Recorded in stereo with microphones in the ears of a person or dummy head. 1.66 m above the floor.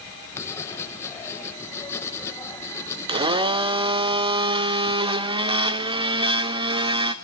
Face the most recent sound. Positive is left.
turn(degrees=-25)  # may be behind; listen again after turning